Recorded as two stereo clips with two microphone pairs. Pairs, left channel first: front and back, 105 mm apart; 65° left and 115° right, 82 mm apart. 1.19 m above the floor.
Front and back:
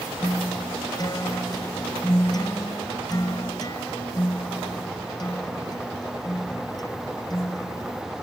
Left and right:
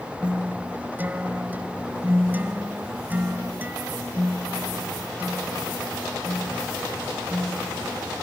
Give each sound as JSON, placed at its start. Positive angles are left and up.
{"t": 0.2, "sound": "a guitar", "azimuth_deg": -50}